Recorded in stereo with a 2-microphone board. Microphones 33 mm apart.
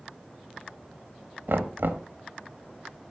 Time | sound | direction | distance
1.5 | knocking | 90° right | 1.2 m